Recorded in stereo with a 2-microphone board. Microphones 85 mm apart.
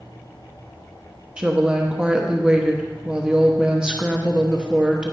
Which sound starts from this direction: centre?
A woman speaking, at 1.4 s.